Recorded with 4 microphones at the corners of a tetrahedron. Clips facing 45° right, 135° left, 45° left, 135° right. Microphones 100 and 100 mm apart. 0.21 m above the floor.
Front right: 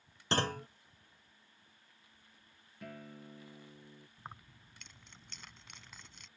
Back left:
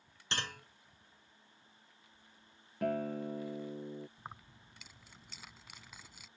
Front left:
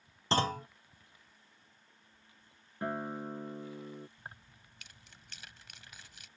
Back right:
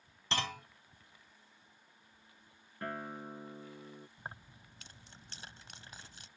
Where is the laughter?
No laughter in this recording.